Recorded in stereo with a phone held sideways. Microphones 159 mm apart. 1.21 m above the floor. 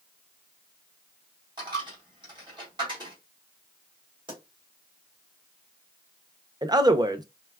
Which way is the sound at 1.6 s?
30° right (ahead or behind).